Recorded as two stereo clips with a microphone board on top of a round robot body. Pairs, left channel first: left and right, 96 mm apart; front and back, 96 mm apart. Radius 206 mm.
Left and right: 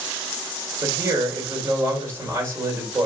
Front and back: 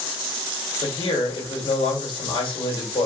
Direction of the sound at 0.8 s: 30° right.